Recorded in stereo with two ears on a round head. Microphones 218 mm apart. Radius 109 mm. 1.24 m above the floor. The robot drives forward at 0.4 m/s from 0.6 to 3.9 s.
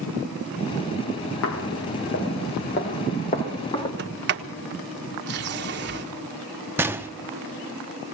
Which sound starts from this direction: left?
Footsteps, at 1.4 s.